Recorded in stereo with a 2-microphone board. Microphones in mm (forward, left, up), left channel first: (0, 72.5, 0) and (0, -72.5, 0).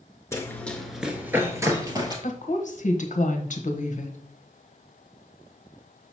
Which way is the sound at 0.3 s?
20° left (ahead or behind).